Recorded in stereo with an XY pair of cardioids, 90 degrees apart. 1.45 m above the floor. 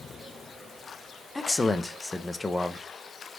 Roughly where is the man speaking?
Ahead.